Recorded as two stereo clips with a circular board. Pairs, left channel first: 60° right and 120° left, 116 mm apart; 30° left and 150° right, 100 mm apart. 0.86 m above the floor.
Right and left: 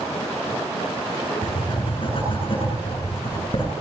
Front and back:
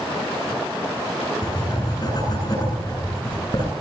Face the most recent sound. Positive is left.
turn(degrees=-20)